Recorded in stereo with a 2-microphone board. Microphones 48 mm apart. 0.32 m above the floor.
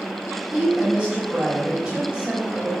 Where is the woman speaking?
25° right (ahead or behind), 1.6 m.